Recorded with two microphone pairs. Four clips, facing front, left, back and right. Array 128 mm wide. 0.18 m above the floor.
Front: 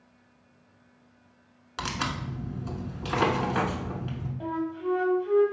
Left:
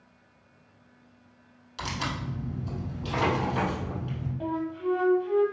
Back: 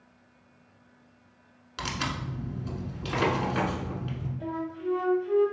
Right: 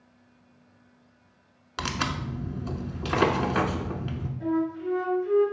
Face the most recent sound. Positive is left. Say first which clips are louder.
# right 3 dB, front 3 dB
turn(degrees=35)